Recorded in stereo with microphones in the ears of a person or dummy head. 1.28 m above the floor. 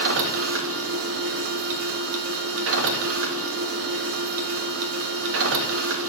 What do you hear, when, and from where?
0.0 s a machine running: 75° right (ahead or behind), 0.8 m